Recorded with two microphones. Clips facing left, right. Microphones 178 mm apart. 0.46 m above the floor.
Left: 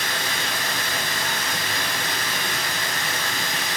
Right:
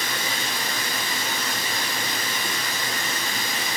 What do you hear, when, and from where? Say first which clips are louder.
0.0 s running water: left 1 dB; 80° left, 1.3 m